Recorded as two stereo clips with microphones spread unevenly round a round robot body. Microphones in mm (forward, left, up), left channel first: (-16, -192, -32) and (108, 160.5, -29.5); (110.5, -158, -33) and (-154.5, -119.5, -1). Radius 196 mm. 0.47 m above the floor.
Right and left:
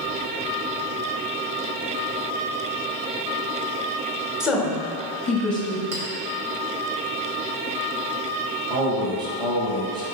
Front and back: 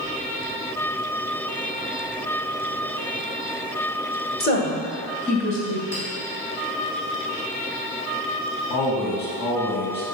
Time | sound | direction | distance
4.4 | a woman speaking | 15° right | 1.2 m
5.9 | a clink | 70° left | 1.7 m
8.7 | a man speaking | 5° right | 2 m